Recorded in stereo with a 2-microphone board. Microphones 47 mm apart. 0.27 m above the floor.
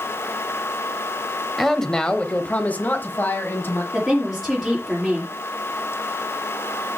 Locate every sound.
1.6 s a man speaking: 5° left (ahead or behind), 0.9 m; by 3.8 s 55° left (ahead or behind), 1.5 m
3.9 s a woman speaking: 5° right (ahead or behind), 5 m